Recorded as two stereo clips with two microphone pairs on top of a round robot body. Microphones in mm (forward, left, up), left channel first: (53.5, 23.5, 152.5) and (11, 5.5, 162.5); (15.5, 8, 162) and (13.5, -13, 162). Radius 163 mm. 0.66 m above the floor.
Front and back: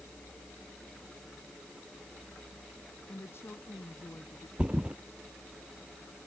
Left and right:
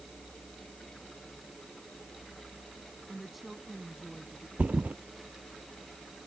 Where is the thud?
90° right.